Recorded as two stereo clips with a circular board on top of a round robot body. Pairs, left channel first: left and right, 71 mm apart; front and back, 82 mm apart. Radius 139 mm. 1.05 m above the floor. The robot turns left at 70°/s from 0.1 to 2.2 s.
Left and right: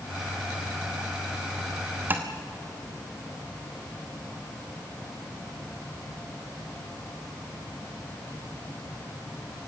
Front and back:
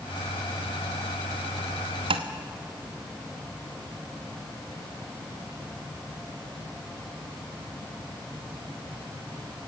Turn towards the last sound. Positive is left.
turn(degrees=-165)